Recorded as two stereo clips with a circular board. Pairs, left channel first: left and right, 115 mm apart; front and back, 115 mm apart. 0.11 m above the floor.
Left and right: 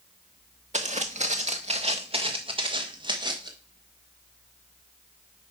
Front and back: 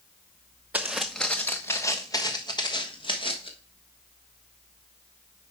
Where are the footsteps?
105° right, 0.8 m; by 3.5 s 40° right, 1.9 m.